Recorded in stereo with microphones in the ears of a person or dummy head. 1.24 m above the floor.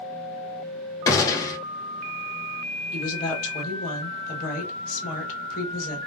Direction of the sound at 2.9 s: 45° left (ahead or behind).